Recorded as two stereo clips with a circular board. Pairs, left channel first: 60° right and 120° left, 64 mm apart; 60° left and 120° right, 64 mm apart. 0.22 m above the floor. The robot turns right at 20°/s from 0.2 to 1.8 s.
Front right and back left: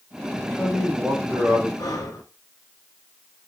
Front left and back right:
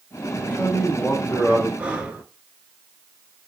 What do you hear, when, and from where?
0.3 s a man speaking: 35° left, 1.2 m; by 1.7 s 65° left, 1.2 m
1.8 s breathing: 50° right, 0.8 m